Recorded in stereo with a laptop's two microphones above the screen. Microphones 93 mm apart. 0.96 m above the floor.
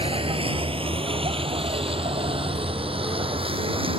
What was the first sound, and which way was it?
A vehicle, 85° right.